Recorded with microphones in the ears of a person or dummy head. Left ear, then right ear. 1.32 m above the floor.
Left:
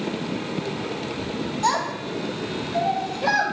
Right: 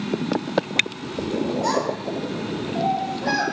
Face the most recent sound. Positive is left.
turn(degrees=30)  # may be behind; listen again after turning